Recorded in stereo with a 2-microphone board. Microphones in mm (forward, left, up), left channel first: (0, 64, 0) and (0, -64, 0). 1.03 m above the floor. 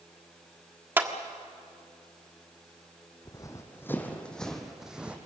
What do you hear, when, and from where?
1.0 s a clap: 15° right (ahead or behind), 1.5 m
3.2 s running footsteps: 30° left (ahead or behind), 2.5 m; by 5.2 s 10° right (ahead or behind), 2.5 m